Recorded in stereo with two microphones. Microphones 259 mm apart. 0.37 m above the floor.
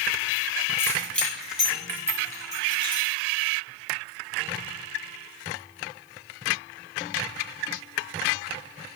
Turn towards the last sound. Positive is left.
turn(degrees=-20)  # may be behind; listen again after turning